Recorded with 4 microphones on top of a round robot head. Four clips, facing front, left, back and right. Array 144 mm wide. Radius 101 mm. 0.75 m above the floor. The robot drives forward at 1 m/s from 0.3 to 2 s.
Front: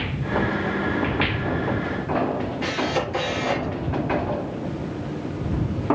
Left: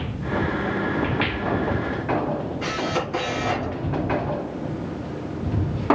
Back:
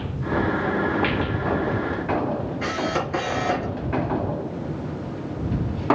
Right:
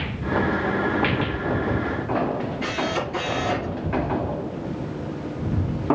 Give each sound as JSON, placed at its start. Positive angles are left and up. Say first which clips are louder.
{"t": 2.6, "sound": "a camera shutter", "louder": "even, front 1 dB", "azimuth_deg": 150, "distance_m": 5.0}